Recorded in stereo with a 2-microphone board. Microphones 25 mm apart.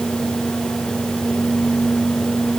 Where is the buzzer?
No buzzer in this recording.